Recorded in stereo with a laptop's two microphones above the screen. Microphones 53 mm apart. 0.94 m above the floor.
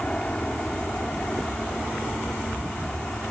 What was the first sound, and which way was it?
An aircraft, 20° left (ahead or behind).